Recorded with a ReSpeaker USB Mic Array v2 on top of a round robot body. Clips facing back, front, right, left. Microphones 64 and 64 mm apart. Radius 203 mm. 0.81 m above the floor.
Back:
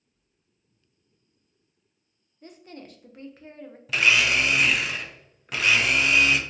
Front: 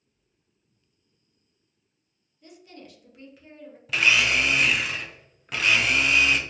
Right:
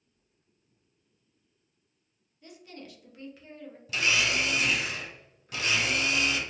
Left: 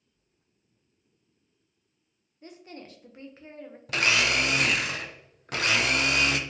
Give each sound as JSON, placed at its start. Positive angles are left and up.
{"t": 2.4, "sound": "a woman speaking", "azimuth_deg": 140, "distance_m": 0.7}
{"t": 3.9, "sound": "a blender", "azimuth_deg": 90, "distance_m": 0.5}